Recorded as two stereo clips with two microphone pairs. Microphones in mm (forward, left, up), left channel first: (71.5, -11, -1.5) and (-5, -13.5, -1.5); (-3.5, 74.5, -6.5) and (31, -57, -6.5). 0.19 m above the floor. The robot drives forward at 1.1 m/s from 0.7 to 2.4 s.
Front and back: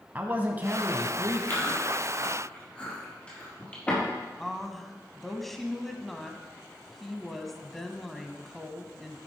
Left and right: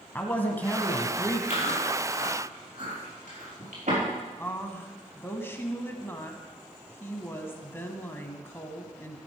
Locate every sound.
0.1 s a man speaking: 160° left, 1.1 m; by 1.4 s 170° left, 1.5 m
1.5 s chewing: 60° right, 5.5 m; by 4.0 s 70° right, 5 m
4.4 s a woman speaking: 80° left, 1.1 m